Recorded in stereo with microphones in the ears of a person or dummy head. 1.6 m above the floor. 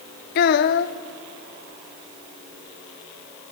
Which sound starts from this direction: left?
A child speaking, at 0.3 s.